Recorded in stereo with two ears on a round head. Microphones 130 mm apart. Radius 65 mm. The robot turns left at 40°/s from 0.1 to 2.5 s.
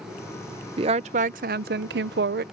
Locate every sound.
0.8 s a woman speaking: 35° right; by 2.4 s 100° right